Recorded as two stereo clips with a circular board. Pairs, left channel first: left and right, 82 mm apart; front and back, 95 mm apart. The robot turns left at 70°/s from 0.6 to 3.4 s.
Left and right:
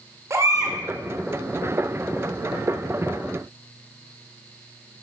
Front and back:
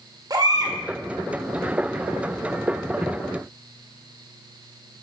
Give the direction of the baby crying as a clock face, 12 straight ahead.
5 o'clock.